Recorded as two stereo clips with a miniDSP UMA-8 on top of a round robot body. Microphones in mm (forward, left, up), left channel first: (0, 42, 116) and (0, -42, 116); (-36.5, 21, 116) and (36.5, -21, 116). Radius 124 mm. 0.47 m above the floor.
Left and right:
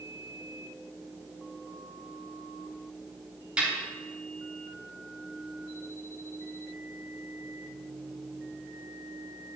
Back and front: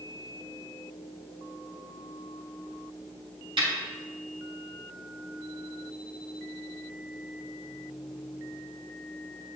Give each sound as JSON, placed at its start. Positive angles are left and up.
{"t": 3.6, "sound": "a snare drum", "azimuth_deg": -15, "distance_m": 4.0}